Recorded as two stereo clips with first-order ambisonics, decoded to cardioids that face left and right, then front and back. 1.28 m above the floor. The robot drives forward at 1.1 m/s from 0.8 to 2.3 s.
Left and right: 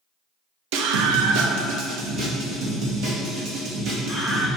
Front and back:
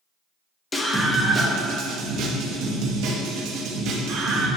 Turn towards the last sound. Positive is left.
turn(degrees=-145)